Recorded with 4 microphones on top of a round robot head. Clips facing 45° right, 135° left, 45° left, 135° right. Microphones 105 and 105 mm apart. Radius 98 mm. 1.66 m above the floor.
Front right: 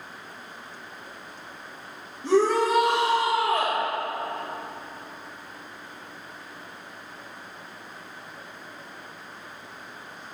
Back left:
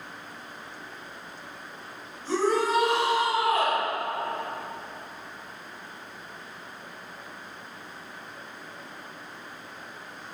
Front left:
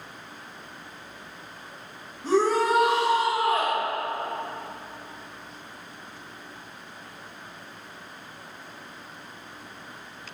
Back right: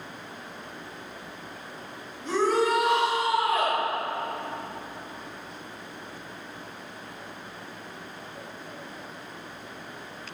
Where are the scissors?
I don't hear scissors.